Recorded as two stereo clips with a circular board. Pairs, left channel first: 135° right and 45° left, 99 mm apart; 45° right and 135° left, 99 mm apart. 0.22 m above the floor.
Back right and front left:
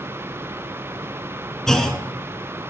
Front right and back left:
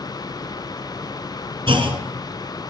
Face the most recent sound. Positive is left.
turn(degrees=140)